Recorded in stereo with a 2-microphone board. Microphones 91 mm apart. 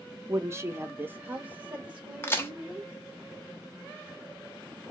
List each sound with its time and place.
0.3 s a woman speaking: 30° right (ahead or behind), 0.6 m; by 2.9 s 10° right (ahead or behind), 2 m
2.2 s a crack: 25° left (ahead or behind), 1.0 m